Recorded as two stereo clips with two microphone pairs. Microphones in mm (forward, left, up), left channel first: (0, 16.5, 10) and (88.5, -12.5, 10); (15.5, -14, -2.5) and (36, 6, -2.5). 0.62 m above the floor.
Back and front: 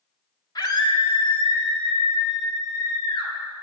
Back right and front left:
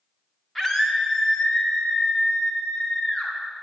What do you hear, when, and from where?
0.6 s a scream: 140° left, 1.5 m; by 3.3 s 170° right, 4.5 m